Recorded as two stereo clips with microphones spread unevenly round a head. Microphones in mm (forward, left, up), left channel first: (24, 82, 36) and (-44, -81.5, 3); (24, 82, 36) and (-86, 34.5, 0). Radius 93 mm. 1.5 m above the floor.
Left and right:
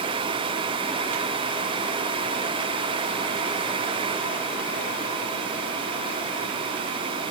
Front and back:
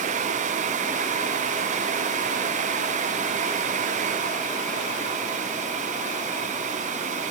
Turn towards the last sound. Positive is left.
No sound to turn to.